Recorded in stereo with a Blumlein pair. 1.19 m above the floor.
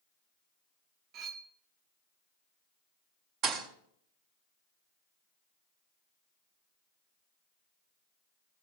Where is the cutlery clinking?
35° right, 0.9 m.